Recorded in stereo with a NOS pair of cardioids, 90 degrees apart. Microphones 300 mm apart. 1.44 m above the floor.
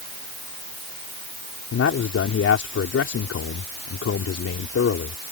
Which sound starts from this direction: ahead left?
A man speaking, at 1.7 s.